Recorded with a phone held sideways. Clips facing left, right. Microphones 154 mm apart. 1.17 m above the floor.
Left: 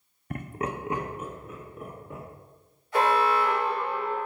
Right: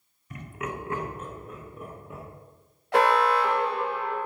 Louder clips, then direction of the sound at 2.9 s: Right 2 dB; 70° right (ahead or behind).